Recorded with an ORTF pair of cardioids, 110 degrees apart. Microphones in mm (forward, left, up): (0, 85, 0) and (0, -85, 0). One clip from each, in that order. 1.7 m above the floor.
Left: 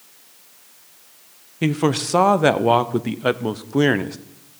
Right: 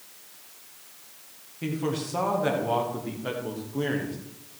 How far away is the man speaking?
About 0.9 m.